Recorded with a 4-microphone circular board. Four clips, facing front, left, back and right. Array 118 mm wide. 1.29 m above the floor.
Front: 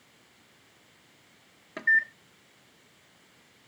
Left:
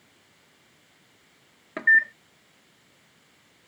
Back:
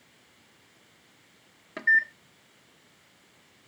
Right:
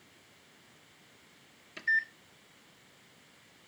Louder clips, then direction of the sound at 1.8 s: Left 11 dB, back 1 dB; 90° left.